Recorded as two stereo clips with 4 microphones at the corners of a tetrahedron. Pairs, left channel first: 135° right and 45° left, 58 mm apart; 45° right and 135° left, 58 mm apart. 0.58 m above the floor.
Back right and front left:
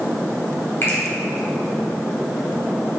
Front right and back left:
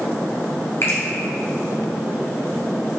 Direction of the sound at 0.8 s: 90° right.